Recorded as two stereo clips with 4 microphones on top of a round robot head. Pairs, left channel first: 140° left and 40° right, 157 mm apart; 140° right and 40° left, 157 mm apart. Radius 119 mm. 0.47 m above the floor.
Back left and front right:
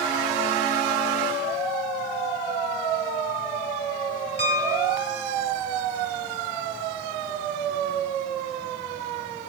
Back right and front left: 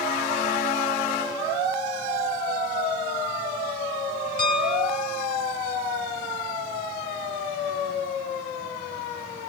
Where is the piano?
170° right, 2.5 m.